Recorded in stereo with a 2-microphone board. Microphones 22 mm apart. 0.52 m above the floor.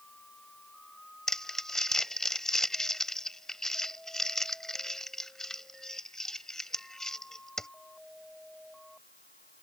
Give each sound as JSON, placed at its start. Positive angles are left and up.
{"t": 1.3, "sound": "crumpling", "side_deg": 25}